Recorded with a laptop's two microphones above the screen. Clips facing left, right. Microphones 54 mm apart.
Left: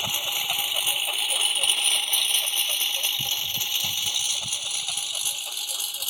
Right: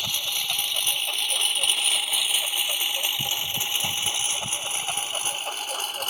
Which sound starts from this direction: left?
A lawn mower, at 0.0 s.